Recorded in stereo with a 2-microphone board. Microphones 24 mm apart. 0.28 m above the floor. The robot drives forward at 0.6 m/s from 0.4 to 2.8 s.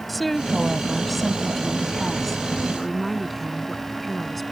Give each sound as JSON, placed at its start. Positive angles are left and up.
{"t": 0.1, "sound": "a woman speaking", "side_deg": 5}